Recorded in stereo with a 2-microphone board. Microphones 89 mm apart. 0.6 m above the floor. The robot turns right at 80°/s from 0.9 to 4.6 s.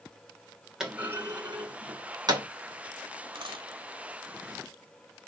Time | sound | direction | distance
0.8 | a clunk | 10° right (ahead or behind) | 2.5 m
3.4 | a dropped coin | 65° right (ahead or behind) | 2 m